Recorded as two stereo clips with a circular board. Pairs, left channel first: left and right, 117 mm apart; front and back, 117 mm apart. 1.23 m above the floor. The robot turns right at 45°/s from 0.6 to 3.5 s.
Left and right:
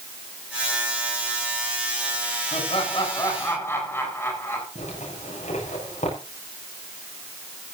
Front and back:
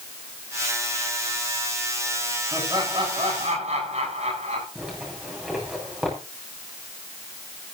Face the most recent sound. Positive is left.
turn(degrees=95)